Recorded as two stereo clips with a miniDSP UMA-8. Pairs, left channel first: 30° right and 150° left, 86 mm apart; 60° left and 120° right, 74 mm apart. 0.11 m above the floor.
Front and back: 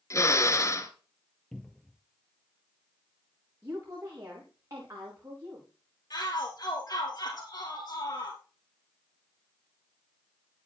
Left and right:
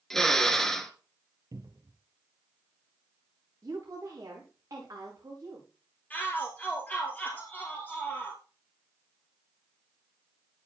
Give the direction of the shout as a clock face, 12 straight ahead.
12 o'clock.